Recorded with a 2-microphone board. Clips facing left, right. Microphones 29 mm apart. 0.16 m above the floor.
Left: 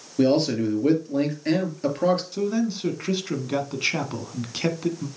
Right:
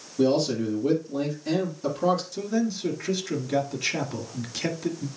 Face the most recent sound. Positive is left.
turn(degrees=35)  # may be behind; listen again after turning